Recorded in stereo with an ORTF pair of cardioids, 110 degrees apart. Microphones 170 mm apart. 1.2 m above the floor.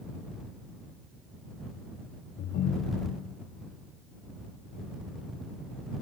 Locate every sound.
2.4 s a ringtone: 65° left